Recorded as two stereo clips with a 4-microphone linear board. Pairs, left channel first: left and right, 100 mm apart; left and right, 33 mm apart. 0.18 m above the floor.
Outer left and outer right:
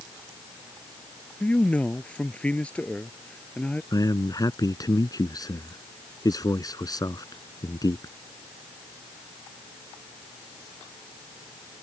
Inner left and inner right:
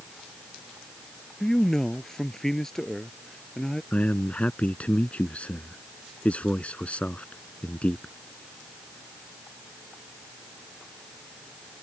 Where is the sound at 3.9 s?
45° left (ahead or behind).